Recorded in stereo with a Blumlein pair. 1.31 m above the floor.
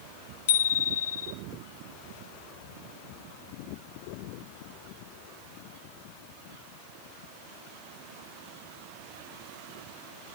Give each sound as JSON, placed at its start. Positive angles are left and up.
{"t": 0.5, "sound": "a bicycle bell", "azimuth_deg": 65, "distance_m": 3.0}